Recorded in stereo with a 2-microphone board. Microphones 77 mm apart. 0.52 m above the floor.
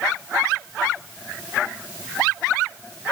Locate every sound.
Only background noise.